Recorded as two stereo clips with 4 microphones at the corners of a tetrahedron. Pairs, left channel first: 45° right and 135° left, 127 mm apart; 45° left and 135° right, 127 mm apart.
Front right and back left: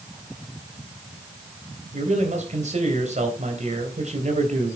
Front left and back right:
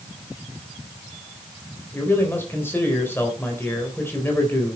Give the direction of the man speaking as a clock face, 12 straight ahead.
8 o'clock.